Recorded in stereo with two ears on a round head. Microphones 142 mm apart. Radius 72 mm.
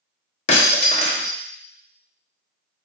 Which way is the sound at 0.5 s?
40° left (ahead or behind).